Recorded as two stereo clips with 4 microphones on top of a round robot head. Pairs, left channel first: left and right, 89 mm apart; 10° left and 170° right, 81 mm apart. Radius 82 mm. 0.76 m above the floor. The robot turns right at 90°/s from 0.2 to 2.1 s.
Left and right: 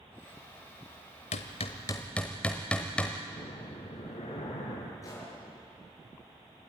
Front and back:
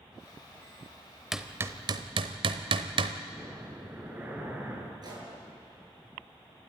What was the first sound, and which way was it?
Hammering, 100° left.